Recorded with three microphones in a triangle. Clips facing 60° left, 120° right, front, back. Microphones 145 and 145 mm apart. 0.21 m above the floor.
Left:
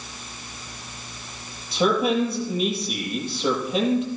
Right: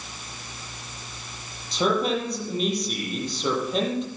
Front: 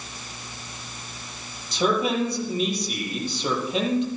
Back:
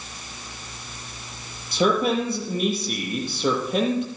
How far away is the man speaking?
About 5.5 m.